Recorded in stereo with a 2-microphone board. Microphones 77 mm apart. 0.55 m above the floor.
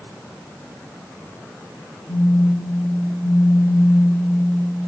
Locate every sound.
2.1 s a phone buzzing: 70° left (ahead or behind), 2.5 m